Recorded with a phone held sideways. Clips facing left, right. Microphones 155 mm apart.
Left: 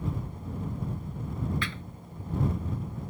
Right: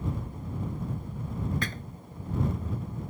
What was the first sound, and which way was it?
A thud, 45° right (ahead or behind).